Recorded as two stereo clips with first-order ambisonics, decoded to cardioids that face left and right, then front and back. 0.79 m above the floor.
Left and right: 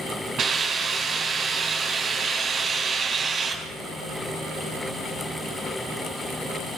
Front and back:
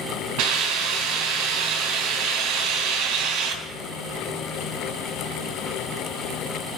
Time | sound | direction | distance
0.4 | a hiss | 155° right | 4 m